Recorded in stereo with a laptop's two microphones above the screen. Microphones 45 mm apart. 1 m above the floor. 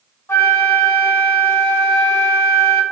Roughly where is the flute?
Left.